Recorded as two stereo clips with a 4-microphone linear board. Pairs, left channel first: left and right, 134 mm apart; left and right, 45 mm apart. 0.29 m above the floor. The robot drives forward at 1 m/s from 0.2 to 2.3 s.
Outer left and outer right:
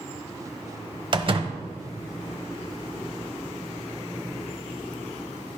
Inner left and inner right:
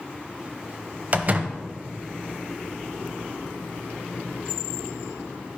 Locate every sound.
1.1 s a door slam: 40° right (ahead or behind), 0.9 m